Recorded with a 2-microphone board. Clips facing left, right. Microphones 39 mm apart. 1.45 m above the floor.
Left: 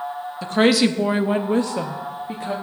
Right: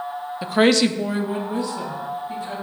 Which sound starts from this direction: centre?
A woman speaking, at 0.4 s.